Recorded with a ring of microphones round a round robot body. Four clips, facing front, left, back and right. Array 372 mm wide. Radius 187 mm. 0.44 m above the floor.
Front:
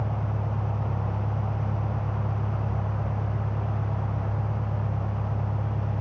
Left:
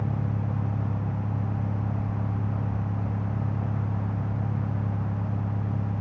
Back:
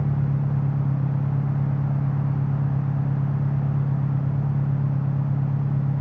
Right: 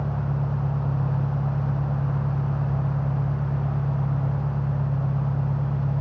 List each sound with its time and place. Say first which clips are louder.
0.0 s an engine running: right 3 dB, back 6 dB; 175° left, 5.5 m